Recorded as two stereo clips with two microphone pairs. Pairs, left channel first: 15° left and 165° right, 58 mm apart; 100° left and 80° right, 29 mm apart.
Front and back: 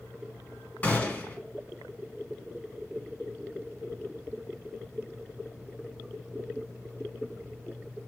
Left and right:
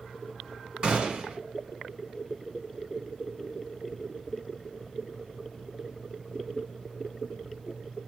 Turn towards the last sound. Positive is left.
turn(degrees=-35)